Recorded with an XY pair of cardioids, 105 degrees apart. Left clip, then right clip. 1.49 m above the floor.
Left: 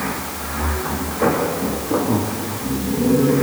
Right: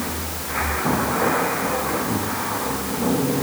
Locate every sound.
Only background noise.